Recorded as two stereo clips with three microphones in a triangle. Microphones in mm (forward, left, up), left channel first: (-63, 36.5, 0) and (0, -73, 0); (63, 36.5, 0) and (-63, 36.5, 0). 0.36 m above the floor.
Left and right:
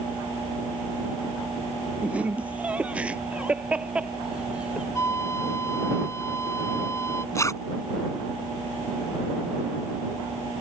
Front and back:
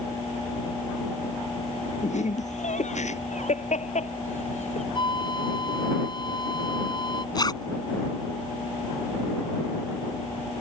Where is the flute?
50° left.